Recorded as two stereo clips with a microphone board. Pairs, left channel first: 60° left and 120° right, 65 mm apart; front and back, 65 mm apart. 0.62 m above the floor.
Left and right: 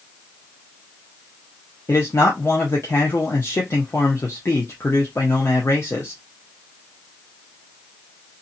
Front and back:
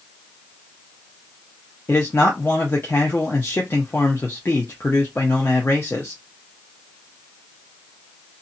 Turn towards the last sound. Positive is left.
turn(degrees=35)